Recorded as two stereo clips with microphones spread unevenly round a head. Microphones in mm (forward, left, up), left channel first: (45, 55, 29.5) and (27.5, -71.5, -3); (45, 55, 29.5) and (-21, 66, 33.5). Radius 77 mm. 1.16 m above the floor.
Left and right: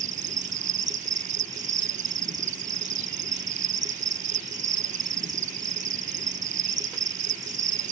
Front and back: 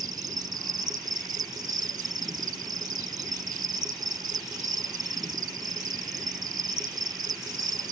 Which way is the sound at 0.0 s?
145° right.